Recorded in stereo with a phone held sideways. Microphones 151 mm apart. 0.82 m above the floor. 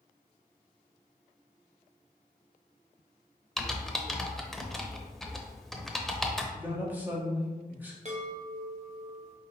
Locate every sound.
3.6 s typing on a keyboard: centre (ahead or behind), 0.6 m
6.5 s a man speaking: 10° right (ahead or behind), 1.3 m
8.1 s a chime: 45° right (ahead or behind), 1.0 m